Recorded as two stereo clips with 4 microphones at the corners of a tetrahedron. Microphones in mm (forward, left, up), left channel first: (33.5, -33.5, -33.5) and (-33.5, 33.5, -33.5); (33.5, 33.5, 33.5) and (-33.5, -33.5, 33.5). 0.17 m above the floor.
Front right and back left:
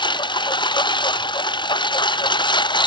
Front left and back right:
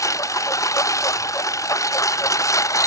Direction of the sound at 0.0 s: 10° right.